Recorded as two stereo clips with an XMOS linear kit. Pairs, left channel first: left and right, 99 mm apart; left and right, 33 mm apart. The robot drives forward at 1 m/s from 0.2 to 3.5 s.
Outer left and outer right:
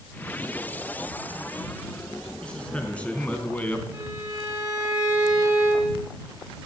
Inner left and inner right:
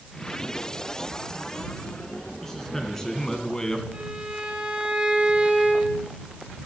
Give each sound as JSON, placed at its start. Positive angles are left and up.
{"t": 2.4, "sound": "a man speaking", "side_deg": 10, "distance_m": 3.0}
{"t": 3.9, "sound": "a violin", "side_deg": -35, "distance_m": 3.5}